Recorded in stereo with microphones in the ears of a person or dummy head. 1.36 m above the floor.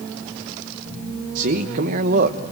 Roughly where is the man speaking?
Right.